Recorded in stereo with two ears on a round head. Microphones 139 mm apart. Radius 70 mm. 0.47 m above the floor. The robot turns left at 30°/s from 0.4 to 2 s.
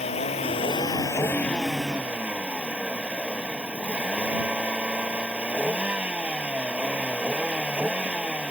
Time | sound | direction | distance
0.0 | a vehicle | 40° left | ?